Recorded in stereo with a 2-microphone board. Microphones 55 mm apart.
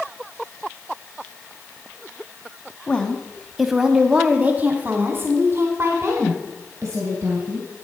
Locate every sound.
2.9 s a woman speaking: 15° left (ahead or behind), 1.0 m; by 7.7 s 60° right (ahead or behind), 2.5 m